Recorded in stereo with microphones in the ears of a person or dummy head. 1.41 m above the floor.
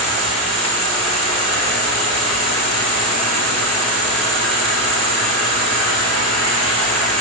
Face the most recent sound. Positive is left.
turn(degrees=-80)